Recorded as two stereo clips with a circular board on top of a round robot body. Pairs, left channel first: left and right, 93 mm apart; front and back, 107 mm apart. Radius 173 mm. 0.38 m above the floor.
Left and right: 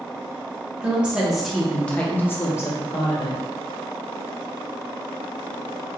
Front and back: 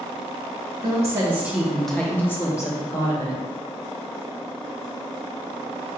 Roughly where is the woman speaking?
Behind right.